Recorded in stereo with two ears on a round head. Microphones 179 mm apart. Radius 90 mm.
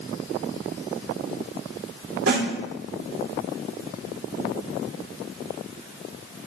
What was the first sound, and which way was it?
A snare drum, 70° right (ahead or behind).